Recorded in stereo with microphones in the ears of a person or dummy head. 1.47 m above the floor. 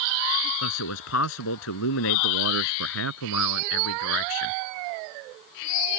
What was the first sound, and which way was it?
A man speaking, 75° left (ahead or behind).